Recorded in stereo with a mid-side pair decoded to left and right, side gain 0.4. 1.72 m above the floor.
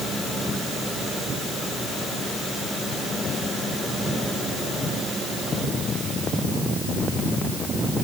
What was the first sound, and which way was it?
Only background noise.